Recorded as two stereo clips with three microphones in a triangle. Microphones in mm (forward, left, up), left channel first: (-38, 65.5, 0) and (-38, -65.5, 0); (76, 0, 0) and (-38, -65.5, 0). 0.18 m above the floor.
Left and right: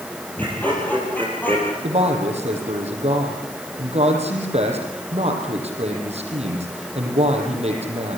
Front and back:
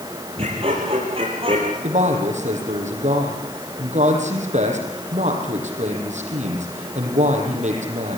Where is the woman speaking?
125° right, 6.5 m.